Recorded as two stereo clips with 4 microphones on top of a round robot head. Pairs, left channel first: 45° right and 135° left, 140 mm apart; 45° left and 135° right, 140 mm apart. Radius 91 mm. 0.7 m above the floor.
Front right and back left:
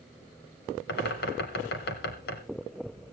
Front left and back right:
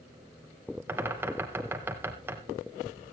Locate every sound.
0.9 s a bird: 55° right, 1.6 m